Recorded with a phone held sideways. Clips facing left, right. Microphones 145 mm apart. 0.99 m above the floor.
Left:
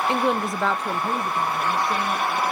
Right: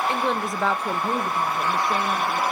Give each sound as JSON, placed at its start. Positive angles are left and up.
{"t": 0.1, "sound": "a woman speaking", "side_deg": 20, "distance_m": 0.7}